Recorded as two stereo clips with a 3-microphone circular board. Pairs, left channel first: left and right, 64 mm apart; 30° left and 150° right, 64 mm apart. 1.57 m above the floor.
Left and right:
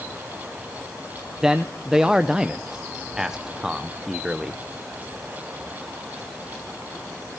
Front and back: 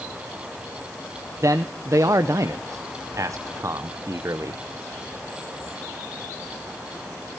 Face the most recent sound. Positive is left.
turn(degrees=-170)